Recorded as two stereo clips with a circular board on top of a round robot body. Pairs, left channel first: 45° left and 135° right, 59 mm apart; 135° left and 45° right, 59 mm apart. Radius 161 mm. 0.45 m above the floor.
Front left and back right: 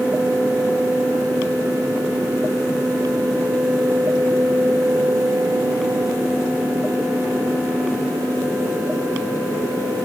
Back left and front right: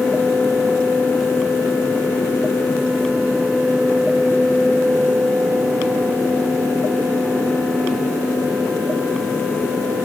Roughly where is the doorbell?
I don't hear a doorbell.